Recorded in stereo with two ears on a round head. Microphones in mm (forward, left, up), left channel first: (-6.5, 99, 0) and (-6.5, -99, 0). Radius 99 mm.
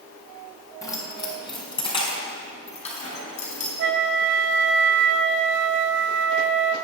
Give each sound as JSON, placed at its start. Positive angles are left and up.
{"t": 0.8, "sound": "keys jangling", "side_deg": 15, "distance_m": 4.0}
{"t": 3.8, "sound": "a flute", "side_deg": -55, "distance_m": 0.8}